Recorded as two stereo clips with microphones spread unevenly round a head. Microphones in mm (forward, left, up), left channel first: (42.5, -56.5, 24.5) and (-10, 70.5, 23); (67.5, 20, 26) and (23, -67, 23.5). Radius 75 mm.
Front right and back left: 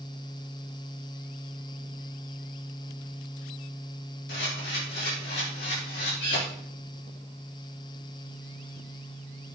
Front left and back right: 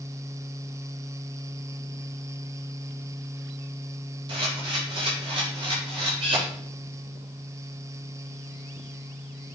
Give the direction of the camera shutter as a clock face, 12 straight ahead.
3 o'clock.